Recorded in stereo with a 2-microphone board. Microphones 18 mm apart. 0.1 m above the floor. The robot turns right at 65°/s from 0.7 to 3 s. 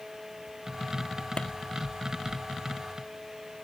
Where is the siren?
I don't hear a siren.